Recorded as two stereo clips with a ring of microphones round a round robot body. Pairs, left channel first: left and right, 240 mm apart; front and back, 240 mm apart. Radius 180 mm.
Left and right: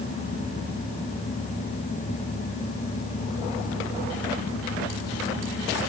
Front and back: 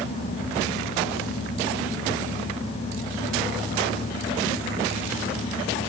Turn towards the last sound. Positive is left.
No sound to turn to.